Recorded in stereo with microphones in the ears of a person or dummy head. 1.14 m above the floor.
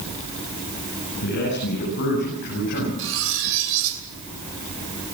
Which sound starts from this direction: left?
A man speaking, at 1.2 s.